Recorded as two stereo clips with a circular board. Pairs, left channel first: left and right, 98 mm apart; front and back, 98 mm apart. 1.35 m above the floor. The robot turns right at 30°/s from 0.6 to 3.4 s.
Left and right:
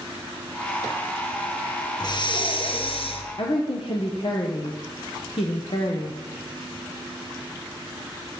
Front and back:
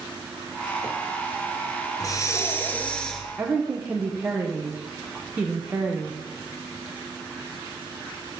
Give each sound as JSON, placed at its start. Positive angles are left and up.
{"t": 2.0, "sound": "breathing", "azimuth_deg": 50, "distance_m": 1.1}
{"t": 3.4, "sound": "a woman speaking", "azimuth_deg": 110, "distance_m": 1.0}